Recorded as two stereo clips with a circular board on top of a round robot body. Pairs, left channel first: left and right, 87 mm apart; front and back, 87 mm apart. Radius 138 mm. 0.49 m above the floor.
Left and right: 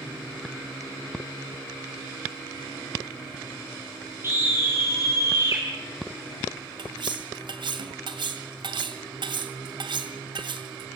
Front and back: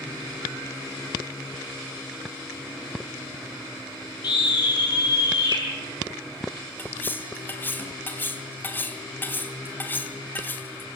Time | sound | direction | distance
4.2 | a scream | 30° right | 4.5 m
6.8 | cutlery clinking | 65° right | 2 m